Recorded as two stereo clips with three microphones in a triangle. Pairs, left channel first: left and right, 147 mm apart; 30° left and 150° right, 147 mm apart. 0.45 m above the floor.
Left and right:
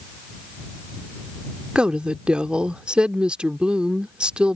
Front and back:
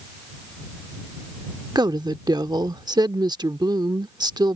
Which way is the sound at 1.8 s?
165° right.